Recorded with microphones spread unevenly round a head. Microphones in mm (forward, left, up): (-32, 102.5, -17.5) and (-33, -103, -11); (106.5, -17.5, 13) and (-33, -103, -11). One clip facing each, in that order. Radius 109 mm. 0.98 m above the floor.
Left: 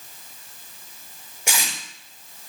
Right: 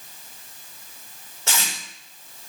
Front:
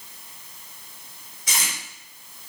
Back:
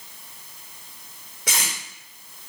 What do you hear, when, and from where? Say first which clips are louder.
1.5 s tape being pulled: even, back 2 dB; 165° left, 4.5 m